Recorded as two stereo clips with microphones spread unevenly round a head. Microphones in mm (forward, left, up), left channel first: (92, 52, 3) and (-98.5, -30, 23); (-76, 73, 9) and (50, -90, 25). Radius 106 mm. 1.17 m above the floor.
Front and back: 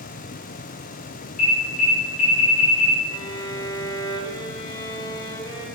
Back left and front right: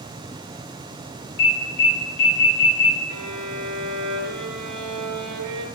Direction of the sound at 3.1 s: 55° right.